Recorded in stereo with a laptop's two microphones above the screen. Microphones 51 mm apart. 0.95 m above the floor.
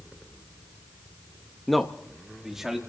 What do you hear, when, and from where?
1.7 s a man speaking: 5° left (ahead or behind), 0.7 m; by 2.8 s 10° right (ahead or behind), 1.5 m